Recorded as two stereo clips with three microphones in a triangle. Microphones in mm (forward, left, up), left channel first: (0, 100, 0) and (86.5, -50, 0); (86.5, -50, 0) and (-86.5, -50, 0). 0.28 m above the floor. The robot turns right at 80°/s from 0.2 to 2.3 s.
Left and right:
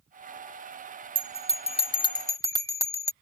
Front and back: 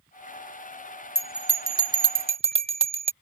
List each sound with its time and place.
1.1 s a bell: 85° left; by 3.1 s 175° left